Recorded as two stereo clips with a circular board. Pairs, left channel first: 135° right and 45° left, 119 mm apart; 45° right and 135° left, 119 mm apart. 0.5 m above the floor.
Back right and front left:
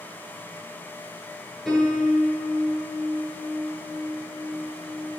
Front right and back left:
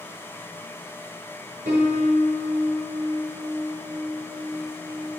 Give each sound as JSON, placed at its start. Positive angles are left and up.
{"t": 1.6, "sound": "a piano", "azimuth_deg": 135, "distance_m": 6.5}